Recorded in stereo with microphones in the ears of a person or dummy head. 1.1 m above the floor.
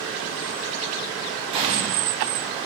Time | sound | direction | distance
1.5 | an explosion | 35° right (ahead or behind) | 2 m